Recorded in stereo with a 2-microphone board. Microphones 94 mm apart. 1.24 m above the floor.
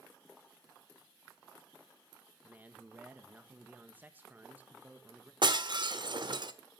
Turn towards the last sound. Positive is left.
turn(degrees=-60)  # may be behind; listen again after turning